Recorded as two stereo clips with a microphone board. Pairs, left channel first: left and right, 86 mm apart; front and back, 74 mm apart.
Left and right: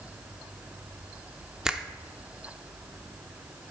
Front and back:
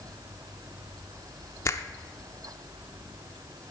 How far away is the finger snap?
About 0.5 m.